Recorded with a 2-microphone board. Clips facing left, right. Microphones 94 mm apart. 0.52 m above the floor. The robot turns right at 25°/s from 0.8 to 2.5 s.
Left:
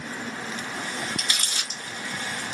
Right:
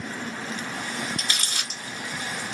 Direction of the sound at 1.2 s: 40° right (ahead or behind).